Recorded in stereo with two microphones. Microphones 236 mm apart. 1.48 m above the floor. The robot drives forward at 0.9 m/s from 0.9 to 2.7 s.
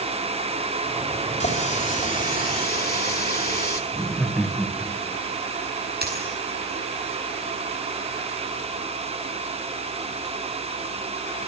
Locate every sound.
1.4 s a running tap: 30° left (ahead or behind), 3.5 m; by 3.8 s 40° left (ahead or behind), 2.5 m
3.9 s laughter: centre (ahead or behind), 1.6 m
6.0 s a dropped coin: 45° right (ahead or behind), 7 m